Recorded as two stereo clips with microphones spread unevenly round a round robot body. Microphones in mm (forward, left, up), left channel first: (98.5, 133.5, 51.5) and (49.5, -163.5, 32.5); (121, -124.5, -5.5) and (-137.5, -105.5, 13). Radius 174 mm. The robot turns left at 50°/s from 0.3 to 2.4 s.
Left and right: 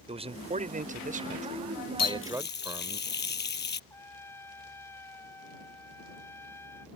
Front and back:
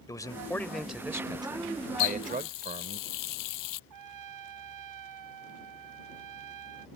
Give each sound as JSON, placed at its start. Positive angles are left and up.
{"t": 0.1, "sound": "a man speaking", "azimuth_deg": -60}
{"t": 2.0, "sound": "a running tap", "azimuth_deg": 45}
{"t": 3.9, "sound": "a trumpet", "azimuth_deg": 165}